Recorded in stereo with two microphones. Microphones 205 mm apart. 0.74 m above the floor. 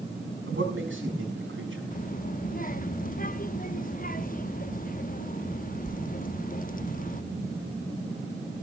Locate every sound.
0.5 s a man speaking: 75° right (ahead or behind), 5.5 m
1.9 s a child speaking: 40° left (ahead or behind), 0.9 m